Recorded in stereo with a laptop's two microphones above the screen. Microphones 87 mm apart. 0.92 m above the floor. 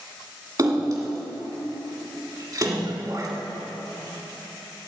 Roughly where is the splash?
Right.